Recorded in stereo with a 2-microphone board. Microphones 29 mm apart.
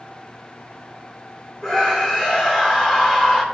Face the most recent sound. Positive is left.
turn(degrees=-5)  # may be behind; listen again after turning